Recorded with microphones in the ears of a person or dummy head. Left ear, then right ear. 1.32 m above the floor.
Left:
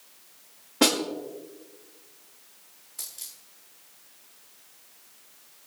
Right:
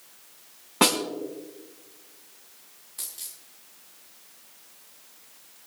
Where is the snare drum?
40° right (ahead or behind), 3 m.